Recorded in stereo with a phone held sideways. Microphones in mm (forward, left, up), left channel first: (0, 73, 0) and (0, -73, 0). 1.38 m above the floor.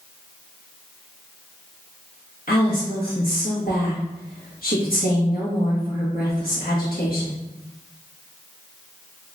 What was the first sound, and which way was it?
A woman speaking, 85° left.